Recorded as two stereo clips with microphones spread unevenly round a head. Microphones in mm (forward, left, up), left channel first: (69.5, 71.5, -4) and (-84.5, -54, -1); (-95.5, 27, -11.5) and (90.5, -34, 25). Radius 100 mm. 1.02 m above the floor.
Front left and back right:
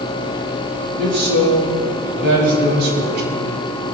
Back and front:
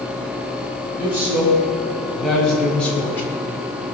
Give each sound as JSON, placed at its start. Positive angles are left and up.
{"t": 1.0, "sound": "a man speaking", "azimuth_deg": -100, "distance_m": 6.5}